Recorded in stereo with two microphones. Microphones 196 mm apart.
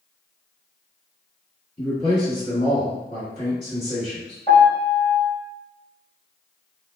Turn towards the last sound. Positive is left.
turn(degrees=35)  # may be behind; listen again after turning